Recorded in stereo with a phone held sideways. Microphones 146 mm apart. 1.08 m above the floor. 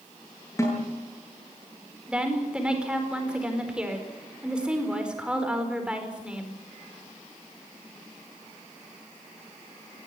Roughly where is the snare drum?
Left.